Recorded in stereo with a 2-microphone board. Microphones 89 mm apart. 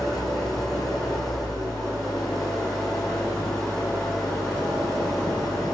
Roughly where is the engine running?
Centre.